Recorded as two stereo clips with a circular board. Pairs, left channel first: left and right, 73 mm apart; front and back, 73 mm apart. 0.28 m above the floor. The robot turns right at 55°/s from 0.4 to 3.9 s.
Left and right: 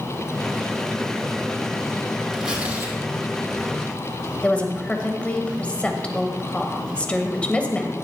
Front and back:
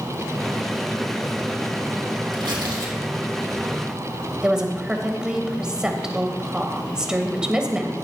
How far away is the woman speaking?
About 1.2 m.